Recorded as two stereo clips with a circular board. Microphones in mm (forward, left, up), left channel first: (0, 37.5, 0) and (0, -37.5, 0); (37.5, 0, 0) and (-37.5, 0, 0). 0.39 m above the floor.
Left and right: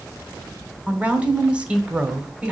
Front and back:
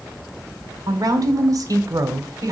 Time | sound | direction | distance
0.9 | a woman speaking | 160° right | 1.4 m